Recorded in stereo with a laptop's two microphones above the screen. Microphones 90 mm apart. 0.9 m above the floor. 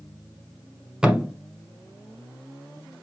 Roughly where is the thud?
Centre.